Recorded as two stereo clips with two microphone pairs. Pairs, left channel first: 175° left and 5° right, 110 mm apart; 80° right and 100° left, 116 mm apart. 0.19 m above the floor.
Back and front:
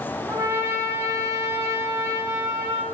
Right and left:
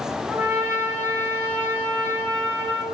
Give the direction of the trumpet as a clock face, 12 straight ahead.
11 o'clock.